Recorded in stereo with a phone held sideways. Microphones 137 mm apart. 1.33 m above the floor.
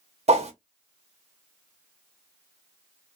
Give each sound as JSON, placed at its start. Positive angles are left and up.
{"t": 0.3, "sound": "a whoosh", "side_deg": -50, "distance_m": 0.9}